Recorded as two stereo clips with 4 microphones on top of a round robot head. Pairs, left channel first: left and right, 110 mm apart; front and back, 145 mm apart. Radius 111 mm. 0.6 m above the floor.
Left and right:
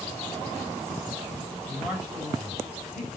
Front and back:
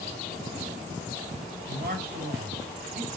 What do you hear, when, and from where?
1.7 s a man speaking: 175° right, 3.5 m